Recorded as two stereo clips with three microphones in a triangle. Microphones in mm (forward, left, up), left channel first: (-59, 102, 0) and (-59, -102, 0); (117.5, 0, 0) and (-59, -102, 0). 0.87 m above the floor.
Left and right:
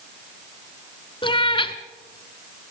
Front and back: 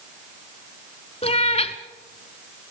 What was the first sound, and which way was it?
A cat meowing, 50° left.